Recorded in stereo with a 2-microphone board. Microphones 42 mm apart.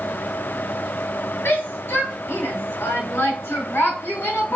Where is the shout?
80° left, 6 m.